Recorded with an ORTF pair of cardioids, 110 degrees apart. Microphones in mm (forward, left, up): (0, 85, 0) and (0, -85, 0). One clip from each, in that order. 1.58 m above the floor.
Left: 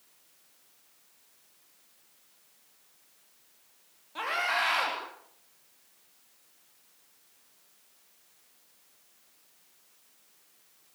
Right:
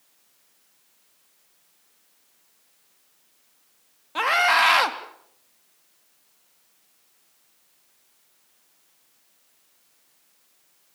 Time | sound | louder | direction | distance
4.2 | a scream | right 10 dB | 60° right | 4 m